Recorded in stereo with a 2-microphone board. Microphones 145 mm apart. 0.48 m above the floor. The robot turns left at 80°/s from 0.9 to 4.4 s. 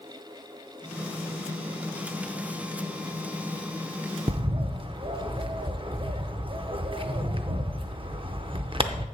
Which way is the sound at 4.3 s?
40° right (ahead or behind).